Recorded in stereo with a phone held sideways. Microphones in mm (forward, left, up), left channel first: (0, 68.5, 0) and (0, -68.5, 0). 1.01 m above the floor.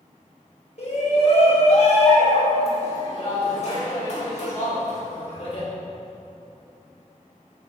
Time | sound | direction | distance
0.8 | a shout | 50° left (ahead or behind) | 4.5 m